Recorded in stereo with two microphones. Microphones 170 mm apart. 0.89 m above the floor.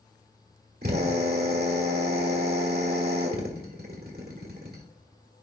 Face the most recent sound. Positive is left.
turn(degrees=-70)  # may be behind; listen again after turning